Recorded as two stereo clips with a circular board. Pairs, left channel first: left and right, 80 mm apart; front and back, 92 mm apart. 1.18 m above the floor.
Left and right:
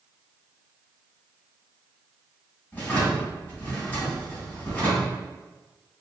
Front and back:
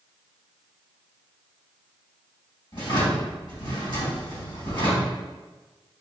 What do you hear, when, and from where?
2.7 s a drawer: 20° left, 1.8 m